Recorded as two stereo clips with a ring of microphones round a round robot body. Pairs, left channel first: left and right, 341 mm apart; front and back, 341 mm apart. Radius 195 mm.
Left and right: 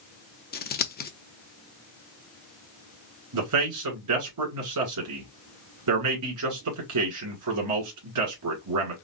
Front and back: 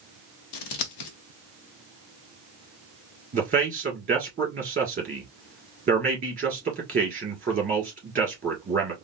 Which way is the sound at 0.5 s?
25° left.